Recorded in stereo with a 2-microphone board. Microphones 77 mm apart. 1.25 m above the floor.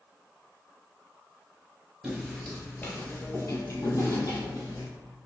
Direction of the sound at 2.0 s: 15° right (ahead or behind).